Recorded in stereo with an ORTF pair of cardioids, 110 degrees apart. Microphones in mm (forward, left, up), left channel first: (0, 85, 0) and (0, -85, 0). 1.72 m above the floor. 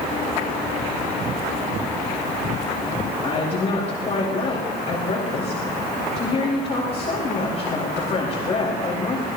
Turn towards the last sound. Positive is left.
turn(degrees=40)